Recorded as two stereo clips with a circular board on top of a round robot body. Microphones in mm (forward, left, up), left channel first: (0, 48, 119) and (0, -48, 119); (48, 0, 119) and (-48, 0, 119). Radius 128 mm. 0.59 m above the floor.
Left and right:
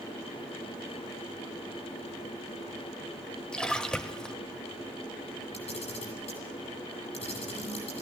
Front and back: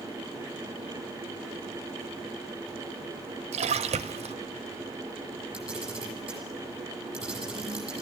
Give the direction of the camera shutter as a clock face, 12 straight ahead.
9 o'clock.